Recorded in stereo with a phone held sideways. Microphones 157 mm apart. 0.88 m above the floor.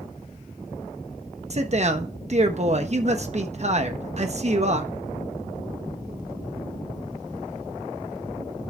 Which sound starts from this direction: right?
A man speaking, at 1.5 s.